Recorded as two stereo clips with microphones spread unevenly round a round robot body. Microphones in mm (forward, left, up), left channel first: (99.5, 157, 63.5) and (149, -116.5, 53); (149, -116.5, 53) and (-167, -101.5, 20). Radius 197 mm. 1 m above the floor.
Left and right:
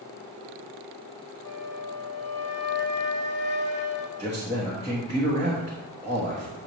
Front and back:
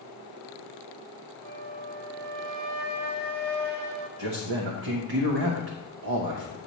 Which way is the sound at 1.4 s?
155° left.